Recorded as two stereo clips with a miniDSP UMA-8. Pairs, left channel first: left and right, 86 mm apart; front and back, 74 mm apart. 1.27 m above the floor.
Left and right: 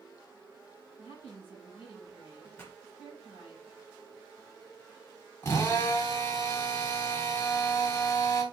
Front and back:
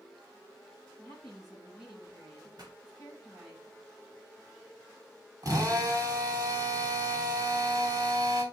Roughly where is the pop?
Behind left.